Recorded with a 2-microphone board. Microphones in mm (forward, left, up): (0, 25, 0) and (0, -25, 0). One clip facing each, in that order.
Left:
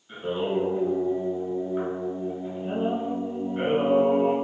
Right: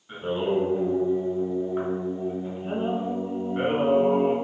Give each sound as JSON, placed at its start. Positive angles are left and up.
{"t": 0.1, "sound": "singing", "side_deg": -35, "distance_m": 1.8}